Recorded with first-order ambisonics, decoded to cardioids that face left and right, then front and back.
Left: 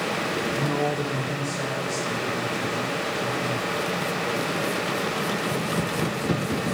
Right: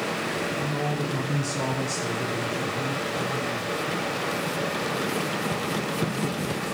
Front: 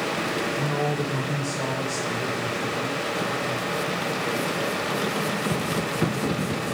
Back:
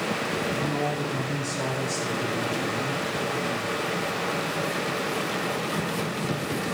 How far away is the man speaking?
About 0.7 m.